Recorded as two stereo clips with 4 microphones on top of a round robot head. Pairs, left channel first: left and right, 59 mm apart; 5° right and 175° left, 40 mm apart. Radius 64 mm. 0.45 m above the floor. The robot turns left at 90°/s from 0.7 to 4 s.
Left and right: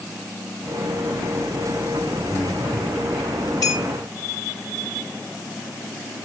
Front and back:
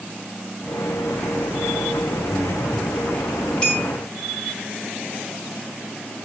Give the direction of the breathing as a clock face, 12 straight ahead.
9 o'clock.